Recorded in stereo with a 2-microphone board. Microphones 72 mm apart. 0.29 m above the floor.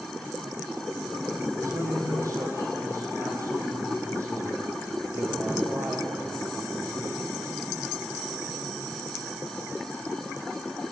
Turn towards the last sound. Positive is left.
turn(degrees=-40)  # may be behind; listen again after turning